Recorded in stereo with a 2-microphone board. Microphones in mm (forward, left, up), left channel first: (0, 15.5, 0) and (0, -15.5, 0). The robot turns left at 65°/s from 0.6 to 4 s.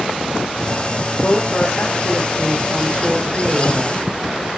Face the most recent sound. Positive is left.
turn(degrees=-70)